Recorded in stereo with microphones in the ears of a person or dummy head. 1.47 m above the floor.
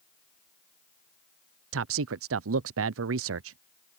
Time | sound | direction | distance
1.7 | a man speaking | 65° right (ahead or behind) | ?